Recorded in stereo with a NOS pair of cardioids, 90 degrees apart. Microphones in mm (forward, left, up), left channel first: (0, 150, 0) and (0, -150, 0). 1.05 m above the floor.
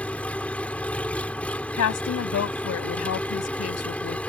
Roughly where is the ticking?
No ticking in this recording.